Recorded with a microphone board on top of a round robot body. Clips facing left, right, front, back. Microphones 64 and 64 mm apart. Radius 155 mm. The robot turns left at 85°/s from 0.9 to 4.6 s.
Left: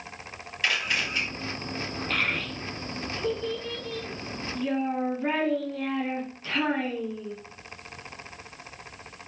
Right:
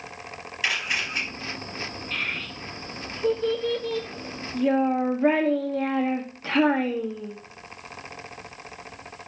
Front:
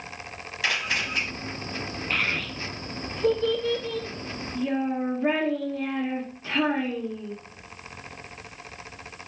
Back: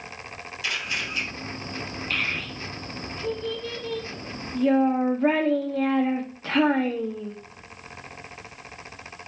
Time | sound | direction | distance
0.6 | a camera shutter | 5° right | 4.5 m
2.1 | a child speaking | 70° left | 1.2 m